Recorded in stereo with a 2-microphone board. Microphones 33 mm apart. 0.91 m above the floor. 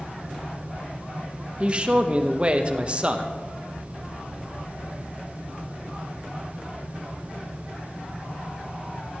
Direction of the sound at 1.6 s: 30° right (ahead or behind).